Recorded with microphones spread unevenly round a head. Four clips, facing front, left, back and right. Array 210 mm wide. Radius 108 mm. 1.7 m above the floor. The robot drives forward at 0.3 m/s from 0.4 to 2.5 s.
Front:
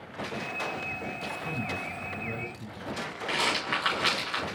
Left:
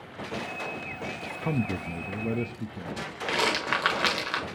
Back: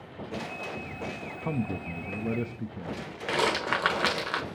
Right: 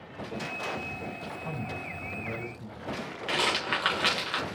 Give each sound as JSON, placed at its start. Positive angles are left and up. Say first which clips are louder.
{"t": 1.4, "sound": "a man speaking", "louder": "left 10 dB, back 6 dB", "azimuth_deg": 95, "distance_m": 0.6}
{"t": 3.3, "sound": "a rattle", "louder": "left 2 dB, back 4 dB", "azimuth_deg": 165, "distance_m": 1.2}